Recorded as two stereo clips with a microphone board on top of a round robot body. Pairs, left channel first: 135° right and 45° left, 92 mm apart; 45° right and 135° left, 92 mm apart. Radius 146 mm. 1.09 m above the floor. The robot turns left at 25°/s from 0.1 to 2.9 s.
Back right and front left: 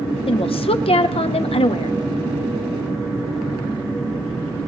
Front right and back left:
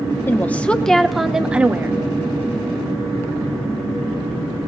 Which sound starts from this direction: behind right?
A woman speaking, at 0.3 s.